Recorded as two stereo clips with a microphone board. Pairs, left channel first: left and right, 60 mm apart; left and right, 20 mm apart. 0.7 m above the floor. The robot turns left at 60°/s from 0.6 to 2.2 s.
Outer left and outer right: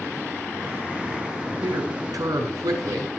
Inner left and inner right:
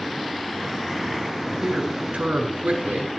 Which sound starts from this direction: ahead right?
A man speaking, at 1.6 s.